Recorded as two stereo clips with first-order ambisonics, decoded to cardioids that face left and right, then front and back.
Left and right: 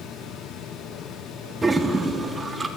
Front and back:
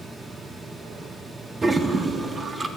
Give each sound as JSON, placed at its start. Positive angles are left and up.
{"t": 1.6, "sound": "a toilet flushing", "azimuth_deg": -140, "distance_m": 0.7}